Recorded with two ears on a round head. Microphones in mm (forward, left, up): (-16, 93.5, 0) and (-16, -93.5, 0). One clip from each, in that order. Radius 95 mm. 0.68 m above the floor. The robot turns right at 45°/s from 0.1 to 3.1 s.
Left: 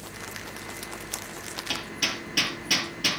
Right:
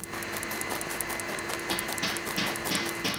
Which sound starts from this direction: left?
Hammering, at 1.7 s.